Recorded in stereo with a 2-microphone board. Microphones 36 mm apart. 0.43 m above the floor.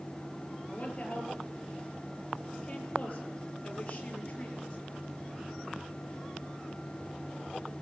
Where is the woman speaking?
30° left (ahead or behind), 9.5 m.